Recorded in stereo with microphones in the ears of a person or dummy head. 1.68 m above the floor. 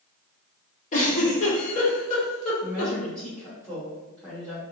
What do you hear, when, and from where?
0.9 s a giggle: 45° left (ahead or behind), 1.3 m
2.6 s a woman speaking: 5° left (ahead or behind), 1.5 m